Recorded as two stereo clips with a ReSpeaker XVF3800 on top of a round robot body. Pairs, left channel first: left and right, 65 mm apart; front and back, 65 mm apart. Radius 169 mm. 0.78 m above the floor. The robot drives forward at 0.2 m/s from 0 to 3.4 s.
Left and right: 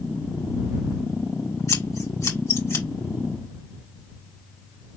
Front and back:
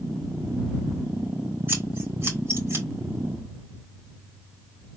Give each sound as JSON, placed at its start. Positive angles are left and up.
{"t": 1.7, "sound": "scissors", "azimuth_deg": 125, "distance_m": 2.5}